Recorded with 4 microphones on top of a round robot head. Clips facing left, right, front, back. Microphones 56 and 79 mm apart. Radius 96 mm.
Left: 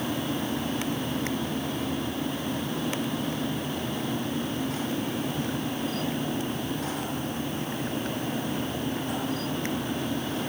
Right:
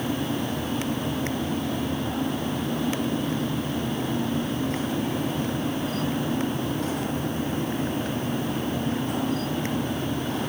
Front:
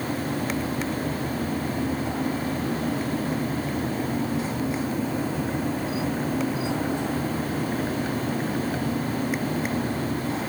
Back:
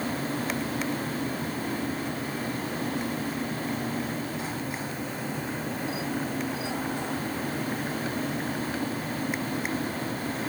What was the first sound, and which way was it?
Only background noise.